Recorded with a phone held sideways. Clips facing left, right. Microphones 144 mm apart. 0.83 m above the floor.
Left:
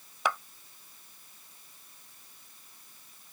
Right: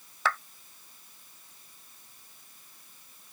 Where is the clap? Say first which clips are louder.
Even; 15° left (ahead or behind).